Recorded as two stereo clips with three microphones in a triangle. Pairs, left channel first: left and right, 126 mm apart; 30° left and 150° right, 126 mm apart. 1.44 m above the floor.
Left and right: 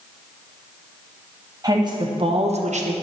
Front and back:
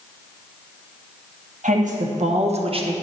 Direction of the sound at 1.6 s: 150° right.